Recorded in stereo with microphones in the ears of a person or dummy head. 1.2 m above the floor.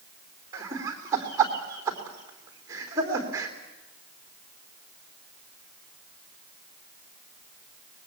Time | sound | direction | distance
0.5 | laughter | 20° right (ahead or behind) | 3.5 m